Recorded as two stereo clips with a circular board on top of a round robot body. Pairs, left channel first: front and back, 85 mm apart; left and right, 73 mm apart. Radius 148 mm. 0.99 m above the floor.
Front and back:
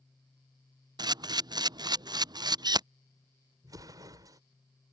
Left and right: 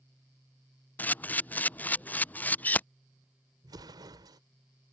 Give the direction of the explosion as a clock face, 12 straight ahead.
4 o'clock.